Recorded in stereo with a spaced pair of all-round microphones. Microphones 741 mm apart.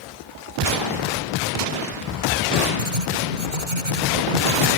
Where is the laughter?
45° right (ahead or behind).